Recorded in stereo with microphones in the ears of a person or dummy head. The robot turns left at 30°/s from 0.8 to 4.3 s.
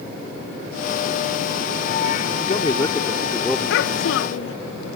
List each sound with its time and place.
2.4 s a man speaking: 40° left; by 3.8 s 5° right
3.7 s a child speaking: 60° left (ahead or behind); by 4.6 s 70° left (ahead or behind)